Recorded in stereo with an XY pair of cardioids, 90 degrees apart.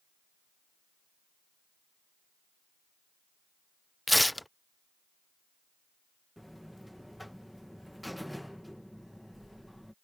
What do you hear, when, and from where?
4.1 s tearing paper: 5° left
6.4 s a buzzer: 5° left